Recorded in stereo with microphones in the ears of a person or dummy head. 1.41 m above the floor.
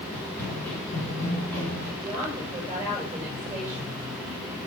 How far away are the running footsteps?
About 8.5 m.